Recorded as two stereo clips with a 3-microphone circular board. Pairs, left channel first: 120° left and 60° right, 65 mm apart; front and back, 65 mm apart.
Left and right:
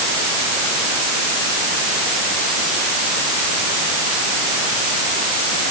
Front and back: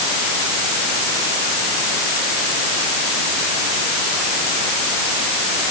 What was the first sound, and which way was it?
Only background noise.